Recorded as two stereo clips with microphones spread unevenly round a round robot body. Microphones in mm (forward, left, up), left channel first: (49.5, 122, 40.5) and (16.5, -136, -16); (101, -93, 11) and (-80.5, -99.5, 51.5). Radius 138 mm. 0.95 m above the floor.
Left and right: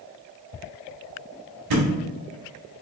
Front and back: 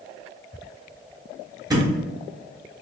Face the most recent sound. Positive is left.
turn(degrees=-110)